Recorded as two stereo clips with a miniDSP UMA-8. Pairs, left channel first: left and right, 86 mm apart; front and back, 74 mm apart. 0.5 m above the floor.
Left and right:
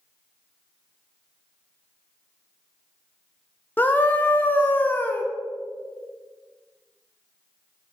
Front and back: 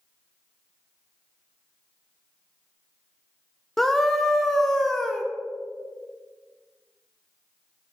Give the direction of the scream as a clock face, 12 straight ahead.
9 o'clock.